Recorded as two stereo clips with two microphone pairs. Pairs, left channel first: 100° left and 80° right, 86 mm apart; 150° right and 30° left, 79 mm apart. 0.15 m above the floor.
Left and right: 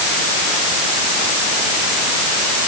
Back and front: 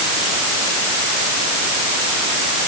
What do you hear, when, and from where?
Only background noise.